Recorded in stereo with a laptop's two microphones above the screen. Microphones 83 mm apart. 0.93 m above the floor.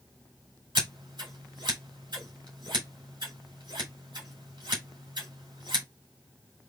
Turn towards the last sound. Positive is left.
turn(degrees=-70)  # may be behind; listen again after turning